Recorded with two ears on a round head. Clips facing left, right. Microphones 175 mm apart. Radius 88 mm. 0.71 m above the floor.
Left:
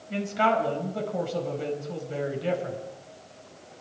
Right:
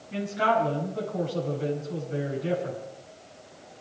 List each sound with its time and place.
0.1 s a man speaking: 80° left, 5 m